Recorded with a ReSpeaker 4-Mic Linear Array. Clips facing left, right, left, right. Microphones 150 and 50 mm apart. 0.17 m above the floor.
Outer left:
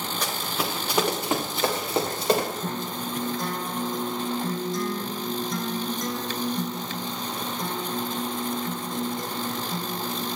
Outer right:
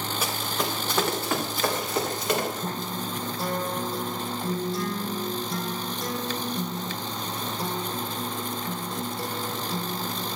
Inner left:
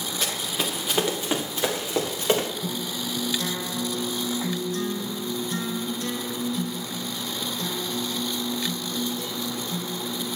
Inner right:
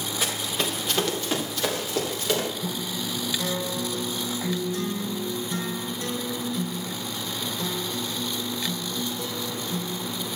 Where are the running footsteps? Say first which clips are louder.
Even, inner right 1 dB; 5° right (ahead or behind), 2.5 m; by 2.5 s 35° left (ahead or behind), 5 m.